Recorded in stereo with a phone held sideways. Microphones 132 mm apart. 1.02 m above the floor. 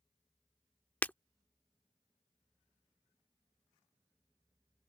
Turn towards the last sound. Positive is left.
turn(degrees=15)  # may be behind; listen again after turning